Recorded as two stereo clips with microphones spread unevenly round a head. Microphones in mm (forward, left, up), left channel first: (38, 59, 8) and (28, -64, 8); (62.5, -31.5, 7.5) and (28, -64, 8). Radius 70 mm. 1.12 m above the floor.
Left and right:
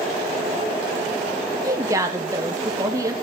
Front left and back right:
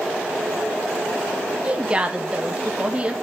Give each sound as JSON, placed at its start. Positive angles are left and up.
{"t": 1.6, "sound": "a woman speaking", "azimuth_deg": -110, "distance_m": 0.7}